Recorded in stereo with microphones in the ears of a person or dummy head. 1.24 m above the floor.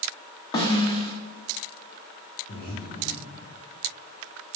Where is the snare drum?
20° left (ahead or behind), 0.6 m.